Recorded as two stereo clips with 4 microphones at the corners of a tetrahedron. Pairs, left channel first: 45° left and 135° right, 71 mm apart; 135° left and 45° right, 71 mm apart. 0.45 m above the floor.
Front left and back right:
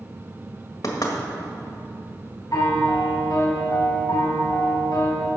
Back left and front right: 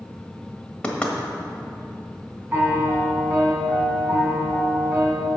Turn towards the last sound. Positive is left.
turn(degrees=15)